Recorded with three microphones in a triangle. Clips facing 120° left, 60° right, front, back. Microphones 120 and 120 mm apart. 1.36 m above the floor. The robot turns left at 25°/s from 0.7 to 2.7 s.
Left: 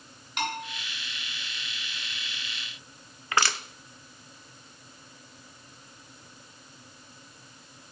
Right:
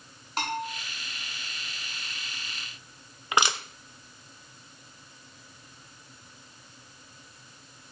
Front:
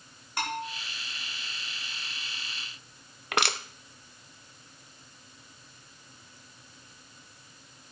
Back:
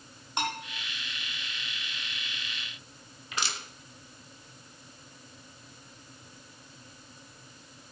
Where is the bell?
110° right, 4.5 m.